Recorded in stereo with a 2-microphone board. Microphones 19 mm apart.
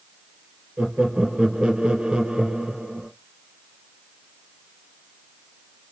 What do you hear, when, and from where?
0.8 s laughter: 60° right (ahead or behind), 3 m